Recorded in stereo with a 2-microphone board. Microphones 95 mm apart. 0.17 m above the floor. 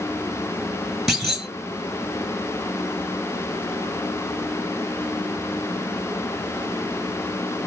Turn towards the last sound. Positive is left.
turn(degrees=0)  # may be behind; listen again after turning